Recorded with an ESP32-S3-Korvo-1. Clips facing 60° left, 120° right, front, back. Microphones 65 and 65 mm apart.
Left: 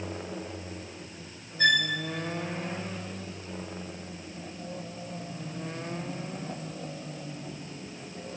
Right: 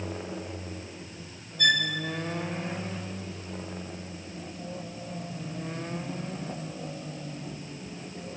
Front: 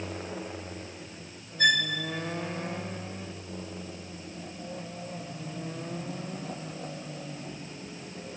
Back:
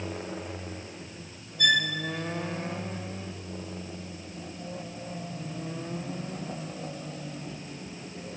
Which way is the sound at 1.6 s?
20° left.